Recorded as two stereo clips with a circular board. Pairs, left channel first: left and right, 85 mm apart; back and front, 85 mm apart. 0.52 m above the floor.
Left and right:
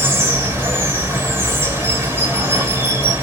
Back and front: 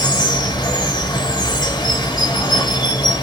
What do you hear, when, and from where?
0.0 s running water: 150° right, 1.2 m